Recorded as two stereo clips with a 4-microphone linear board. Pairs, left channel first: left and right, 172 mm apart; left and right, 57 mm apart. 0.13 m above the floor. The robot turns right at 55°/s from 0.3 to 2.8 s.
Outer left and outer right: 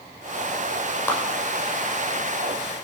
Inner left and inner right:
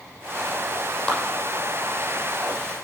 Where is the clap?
10° left (ahead or behind), 5.5 m; by 1.2 s 5° left (ahead or behind), 5.5 m.